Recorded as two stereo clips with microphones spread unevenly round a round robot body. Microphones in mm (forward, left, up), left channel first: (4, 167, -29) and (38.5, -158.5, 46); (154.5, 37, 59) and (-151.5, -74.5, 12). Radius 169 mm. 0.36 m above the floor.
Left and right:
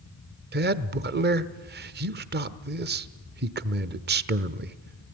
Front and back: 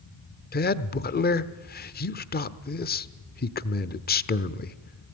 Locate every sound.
0.5 s a man speaking: 30° right, 1.1 m